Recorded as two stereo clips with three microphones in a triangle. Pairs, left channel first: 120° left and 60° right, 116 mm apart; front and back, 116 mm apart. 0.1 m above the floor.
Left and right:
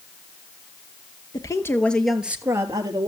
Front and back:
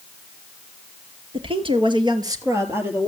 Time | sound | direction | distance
1.3 | a woman speaking | 165° left | 1.9 m